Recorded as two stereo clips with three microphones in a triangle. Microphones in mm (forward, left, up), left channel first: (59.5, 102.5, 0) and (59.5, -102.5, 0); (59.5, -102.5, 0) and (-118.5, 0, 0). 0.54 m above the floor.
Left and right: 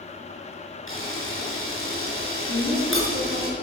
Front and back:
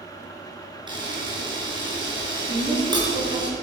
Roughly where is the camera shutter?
Left.